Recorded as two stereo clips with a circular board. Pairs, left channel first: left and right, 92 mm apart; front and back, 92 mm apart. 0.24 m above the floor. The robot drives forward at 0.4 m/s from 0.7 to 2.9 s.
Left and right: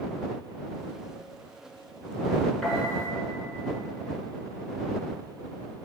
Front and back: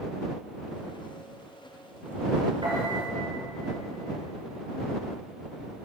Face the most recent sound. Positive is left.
turn(degrees=175)